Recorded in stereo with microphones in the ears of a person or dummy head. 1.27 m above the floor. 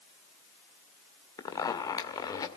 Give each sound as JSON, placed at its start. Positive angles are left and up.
{"t": 1.4, "sound": "a zipper", "side_deg": 20, "distance_m": 1.7}